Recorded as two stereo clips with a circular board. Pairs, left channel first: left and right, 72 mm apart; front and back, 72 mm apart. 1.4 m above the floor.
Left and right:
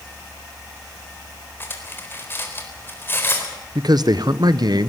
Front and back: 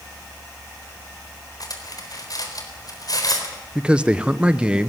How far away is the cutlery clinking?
About 4 m.